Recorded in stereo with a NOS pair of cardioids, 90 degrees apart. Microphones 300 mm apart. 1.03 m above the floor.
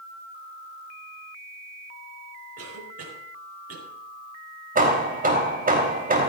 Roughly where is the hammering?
Ahead right.